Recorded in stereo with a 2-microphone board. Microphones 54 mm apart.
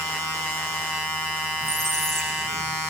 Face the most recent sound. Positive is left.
turn(degrees=10)  # may be behind; listen again after turning